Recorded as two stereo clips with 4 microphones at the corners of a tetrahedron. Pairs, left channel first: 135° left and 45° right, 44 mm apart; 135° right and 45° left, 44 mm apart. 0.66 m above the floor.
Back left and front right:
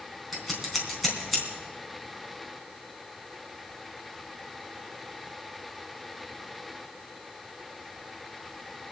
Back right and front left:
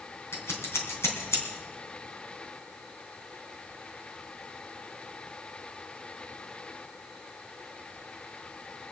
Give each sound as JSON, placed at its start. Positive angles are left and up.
{"t": 0.3, "sound": "scissors", "azimuth_deg": -135, "distance_m": 3.0}